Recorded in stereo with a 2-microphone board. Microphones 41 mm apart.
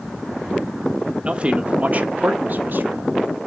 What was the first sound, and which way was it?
A man speaking, 30° right (ahead or behind).